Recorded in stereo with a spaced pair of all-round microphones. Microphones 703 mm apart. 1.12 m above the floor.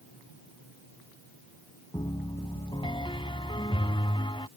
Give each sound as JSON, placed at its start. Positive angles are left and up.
{"t": 1.9, "sound": "a piano", "side_deg": 5}